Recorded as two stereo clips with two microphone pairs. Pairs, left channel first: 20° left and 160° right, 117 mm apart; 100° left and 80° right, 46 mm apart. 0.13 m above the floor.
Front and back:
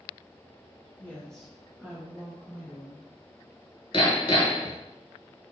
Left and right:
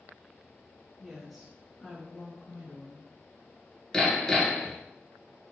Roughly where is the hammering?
Ahead left.